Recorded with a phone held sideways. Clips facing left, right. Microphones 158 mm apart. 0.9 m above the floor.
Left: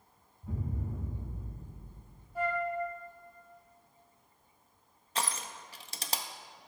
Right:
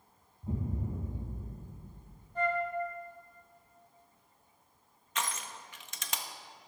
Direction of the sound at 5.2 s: 35° left (ahead or behind).